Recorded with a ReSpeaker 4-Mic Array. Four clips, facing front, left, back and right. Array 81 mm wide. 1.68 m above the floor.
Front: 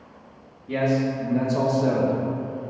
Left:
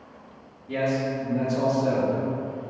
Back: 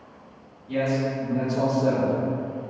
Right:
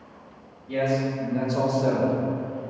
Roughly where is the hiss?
No hiss in this recording.